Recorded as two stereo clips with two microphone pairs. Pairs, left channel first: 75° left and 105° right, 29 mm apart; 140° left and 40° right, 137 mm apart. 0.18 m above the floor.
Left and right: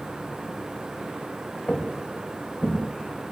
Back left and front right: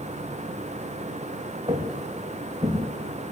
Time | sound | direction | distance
1.7 | footsteps | 15° left | 3.5 m